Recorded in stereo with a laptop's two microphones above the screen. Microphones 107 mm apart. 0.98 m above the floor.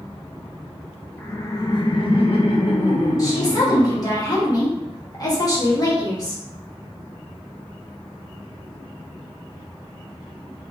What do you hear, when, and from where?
1.2 s laughter: 15° left (ahead or behind), 0.7 m; by 4.2 s 60° left (ahead or behind), 2 m
3.2 s a woman speaking: 35° left (ahead or behind), 1.6 m